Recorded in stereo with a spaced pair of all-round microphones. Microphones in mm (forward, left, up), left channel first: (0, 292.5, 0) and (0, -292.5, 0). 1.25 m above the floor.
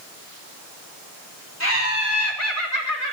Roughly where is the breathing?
No breathing in this recording.